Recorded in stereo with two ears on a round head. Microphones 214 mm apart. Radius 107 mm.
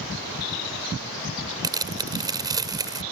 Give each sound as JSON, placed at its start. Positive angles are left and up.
{"t": 1.6, "sound": "tearing paper", "side_deg": -15}